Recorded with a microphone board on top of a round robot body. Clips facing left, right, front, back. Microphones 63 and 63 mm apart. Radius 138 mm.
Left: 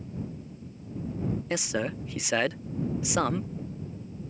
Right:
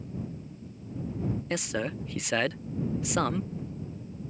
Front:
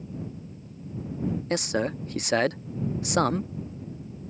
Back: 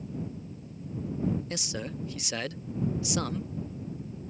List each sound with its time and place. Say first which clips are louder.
1.5 s a man speaking: left 2 dB, front 9 dB; 5° left